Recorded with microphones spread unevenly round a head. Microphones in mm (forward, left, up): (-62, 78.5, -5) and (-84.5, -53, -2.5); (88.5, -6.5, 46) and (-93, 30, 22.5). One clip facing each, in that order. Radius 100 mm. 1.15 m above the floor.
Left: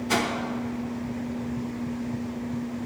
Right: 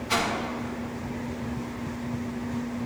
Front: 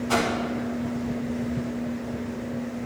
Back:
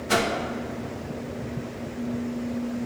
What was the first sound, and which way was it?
A whoosh, 105° left.